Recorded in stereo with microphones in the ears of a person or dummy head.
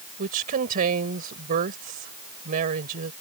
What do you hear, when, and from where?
0.2 s a woman speaking: 50° right (ahead or behind)